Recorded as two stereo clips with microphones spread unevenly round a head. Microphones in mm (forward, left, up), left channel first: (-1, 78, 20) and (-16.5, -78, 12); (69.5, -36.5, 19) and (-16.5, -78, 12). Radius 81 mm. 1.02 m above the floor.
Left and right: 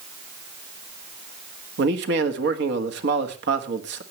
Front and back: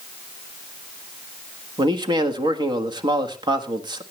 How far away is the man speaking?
About 1.5 m.